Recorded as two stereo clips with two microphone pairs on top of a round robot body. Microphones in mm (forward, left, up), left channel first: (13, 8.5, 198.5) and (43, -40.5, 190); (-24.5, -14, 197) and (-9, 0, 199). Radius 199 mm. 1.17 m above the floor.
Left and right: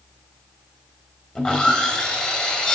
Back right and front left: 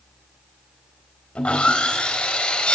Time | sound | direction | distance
1.4 | sawing | 160° right | 3 m